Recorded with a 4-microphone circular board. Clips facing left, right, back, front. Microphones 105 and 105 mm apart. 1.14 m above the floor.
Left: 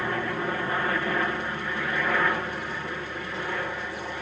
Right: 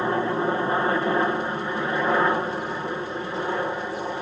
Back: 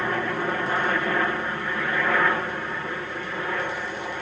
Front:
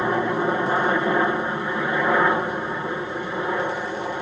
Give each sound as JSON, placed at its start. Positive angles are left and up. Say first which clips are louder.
{"t": 0.0, "sound": "a helicopter", "louder": "right 6 dB, front 4 dB", "azimuth_deg": -55}